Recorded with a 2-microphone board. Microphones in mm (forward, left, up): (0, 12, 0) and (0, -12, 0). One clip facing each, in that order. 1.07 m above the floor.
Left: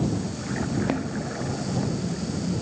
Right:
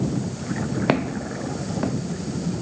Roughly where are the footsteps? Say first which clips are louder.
Right 5 dB; right.